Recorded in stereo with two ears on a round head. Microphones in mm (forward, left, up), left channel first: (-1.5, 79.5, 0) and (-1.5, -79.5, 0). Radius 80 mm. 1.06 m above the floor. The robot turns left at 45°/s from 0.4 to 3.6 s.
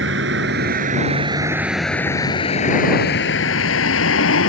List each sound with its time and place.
0.0 s a vehicle: 70° right (ahead or behind); by 4.5 s 90° left